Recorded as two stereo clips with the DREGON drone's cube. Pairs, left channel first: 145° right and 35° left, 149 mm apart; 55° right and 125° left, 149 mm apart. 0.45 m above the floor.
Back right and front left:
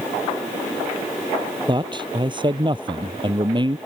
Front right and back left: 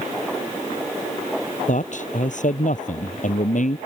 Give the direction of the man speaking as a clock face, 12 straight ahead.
1 o'clock.